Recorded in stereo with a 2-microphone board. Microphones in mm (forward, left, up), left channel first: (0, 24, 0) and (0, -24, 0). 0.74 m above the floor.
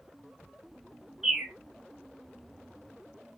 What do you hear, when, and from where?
1.2 s a bird: 5° right (ahead or behind), 0.9 m